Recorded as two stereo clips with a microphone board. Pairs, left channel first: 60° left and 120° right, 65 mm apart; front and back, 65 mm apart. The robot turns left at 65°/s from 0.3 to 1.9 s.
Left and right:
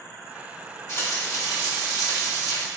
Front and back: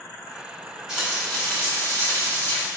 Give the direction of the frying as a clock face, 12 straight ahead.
9 o'clock.